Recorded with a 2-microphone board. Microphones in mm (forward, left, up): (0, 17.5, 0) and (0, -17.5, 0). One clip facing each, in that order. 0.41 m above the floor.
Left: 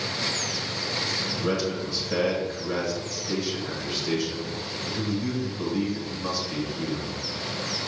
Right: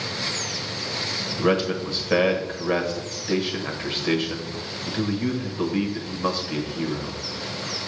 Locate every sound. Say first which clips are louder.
1.4 s a man speaking: right 7 dB; 40° right (ahead or behind), 1.3 m